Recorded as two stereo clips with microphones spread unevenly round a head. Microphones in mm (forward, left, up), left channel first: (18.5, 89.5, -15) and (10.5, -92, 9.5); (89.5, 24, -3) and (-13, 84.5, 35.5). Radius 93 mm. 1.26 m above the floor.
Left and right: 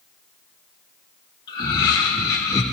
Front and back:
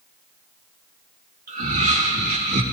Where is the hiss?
No hiss in this recording.